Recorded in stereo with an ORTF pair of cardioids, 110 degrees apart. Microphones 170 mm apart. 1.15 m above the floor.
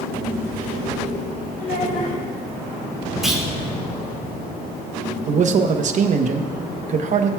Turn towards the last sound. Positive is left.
turn(degrees=-45)